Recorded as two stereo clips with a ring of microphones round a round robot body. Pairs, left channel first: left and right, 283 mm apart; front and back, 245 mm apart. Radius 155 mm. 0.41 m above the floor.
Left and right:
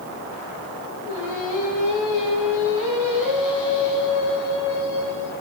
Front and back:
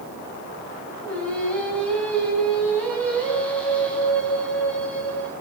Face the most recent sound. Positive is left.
turn(degrees=85)